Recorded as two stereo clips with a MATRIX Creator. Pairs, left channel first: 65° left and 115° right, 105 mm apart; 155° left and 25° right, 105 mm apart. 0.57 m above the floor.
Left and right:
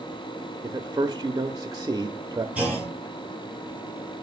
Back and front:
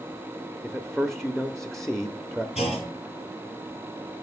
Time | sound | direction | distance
0.6 | a man speaking | 115° right | 0.7 m
2.5 | a clunk | 170° left | 3.5 m